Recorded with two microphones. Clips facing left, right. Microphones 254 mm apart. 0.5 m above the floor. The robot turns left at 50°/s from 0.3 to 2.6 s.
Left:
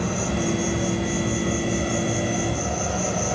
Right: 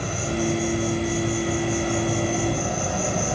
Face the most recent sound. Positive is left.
turn(degrees=0)